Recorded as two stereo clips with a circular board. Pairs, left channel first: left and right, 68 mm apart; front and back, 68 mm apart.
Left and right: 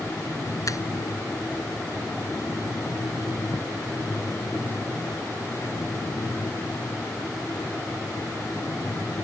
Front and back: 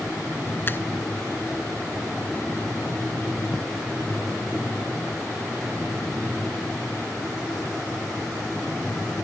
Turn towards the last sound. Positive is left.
turn(degrees=55)